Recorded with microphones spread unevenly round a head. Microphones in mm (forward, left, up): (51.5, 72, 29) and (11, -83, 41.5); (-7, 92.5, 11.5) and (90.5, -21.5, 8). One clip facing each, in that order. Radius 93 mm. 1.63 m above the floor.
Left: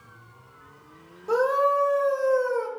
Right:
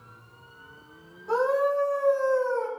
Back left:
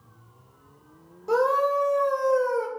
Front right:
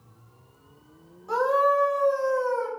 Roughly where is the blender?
I don't hear a blender.